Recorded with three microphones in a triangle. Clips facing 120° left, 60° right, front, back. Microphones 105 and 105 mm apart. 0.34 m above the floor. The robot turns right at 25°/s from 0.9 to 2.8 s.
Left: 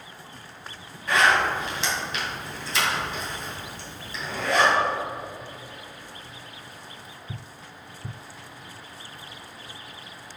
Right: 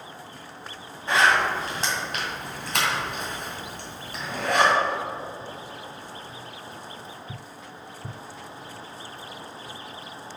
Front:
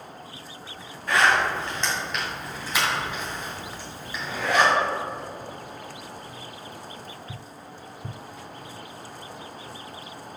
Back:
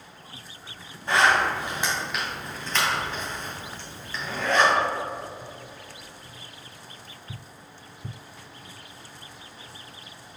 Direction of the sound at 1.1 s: 120° right.